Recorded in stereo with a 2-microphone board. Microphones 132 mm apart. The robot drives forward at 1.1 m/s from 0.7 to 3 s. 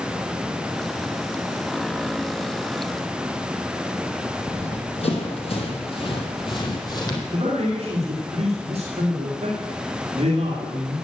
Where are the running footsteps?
60° left (ahead or behind), 2.5 m; by 7.2 s 30° left (ahead or behind), 2.5 m.